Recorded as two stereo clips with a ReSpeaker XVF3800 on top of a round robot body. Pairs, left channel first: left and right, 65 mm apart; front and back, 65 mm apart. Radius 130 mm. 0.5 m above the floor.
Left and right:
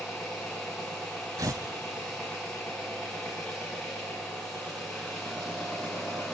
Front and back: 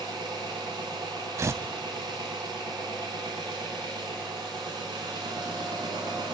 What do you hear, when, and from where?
0.0 s an engine running: 175° left, 3 m
1.4 s tearing paper: 135° right, 0.6 m